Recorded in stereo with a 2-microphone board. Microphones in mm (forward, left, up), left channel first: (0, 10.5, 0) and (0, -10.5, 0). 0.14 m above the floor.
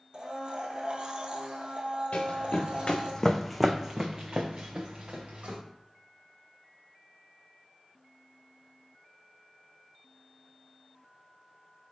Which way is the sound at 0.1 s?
55° right (ahead or behind).